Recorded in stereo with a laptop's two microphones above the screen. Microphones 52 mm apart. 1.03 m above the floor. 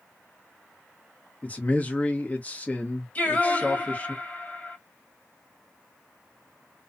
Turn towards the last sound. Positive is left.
turn(degrees=30)  # may be behind; listen again after turning